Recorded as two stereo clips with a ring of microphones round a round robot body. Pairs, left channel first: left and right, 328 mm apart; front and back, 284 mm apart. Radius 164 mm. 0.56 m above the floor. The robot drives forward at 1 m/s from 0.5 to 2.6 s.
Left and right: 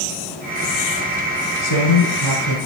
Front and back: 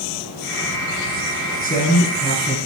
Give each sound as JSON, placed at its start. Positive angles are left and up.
{"t": 1.6, "sound": "a man speaking", "azimuth_deg": 60, "distance_m": 6.5}